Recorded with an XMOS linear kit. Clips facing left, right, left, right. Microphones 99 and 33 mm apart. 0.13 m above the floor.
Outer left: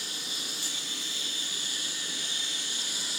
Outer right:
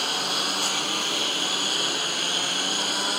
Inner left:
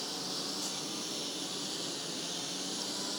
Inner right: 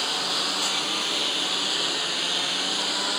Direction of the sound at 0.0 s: 80° right.